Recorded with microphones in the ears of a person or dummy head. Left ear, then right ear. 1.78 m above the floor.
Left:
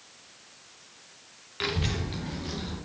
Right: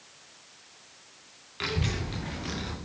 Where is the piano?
No piano in this recording.